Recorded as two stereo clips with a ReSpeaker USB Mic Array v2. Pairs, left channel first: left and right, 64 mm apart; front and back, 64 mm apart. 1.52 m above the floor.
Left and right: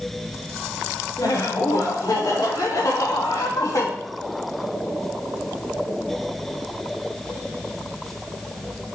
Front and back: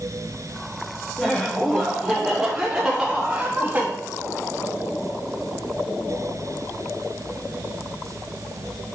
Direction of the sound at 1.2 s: 80° left.